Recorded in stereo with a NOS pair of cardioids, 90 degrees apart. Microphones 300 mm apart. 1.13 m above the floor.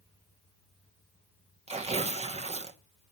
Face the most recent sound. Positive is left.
turn(degrees=-20)